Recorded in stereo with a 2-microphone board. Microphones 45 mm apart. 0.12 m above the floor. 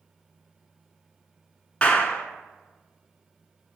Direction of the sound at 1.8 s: 25° left (ahead or behind).